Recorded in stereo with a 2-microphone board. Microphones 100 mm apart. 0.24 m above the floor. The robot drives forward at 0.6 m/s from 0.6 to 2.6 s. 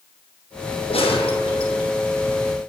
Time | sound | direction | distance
0.9 | a gunshot | 80° left | 1.6 m